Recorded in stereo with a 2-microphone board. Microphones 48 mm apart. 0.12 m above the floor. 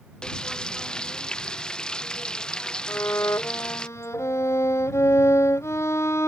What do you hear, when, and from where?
0.2 s frying: 15° left (ahead or behind)
2.9 s a violin: 65° left (ahead or behind)